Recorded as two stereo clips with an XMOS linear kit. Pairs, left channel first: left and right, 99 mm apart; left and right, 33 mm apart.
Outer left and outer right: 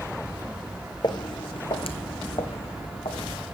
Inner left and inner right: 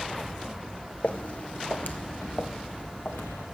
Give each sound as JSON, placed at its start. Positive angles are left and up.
{"t": 1.0, "sound": "footsteps", "side_deg": 45, "distance_m": 1.0}